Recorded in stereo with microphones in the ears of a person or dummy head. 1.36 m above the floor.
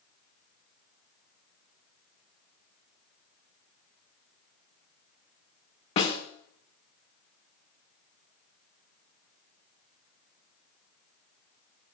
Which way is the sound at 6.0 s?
35° left (ahead or behind).